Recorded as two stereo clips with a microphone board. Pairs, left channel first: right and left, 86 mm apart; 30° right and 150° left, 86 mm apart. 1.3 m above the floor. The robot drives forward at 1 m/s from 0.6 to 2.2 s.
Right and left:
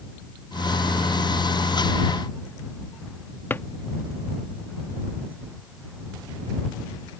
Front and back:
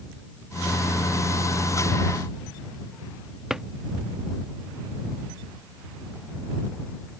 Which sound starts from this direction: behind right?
A drawer, at 3.5 s.